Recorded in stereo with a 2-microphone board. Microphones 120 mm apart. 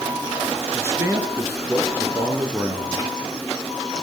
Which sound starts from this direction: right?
A man speaking, at 0.7 s.